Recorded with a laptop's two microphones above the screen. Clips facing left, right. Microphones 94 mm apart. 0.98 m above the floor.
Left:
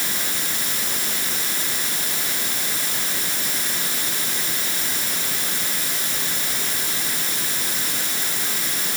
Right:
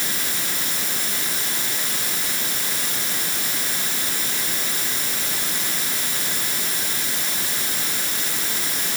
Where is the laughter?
I don't hear laughter.